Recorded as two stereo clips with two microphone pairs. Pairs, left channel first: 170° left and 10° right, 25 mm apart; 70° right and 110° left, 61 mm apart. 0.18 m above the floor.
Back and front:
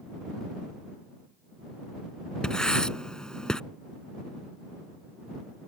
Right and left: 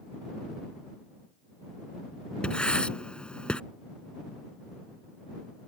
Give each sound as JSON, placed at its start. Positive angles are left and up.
{"t": 2.4, "sound": "writing", "azimuth_deg": -140}